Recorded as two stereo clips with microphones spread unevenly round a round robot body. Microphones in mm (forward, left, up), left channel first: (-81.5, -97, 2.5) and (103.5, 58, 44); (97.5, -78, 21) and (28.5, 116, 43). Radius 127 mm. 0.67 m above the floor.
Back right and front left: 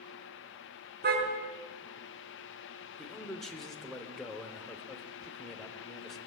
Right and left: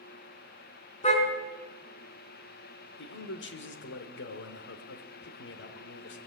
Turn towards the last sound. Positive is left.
turn(degrees=-55)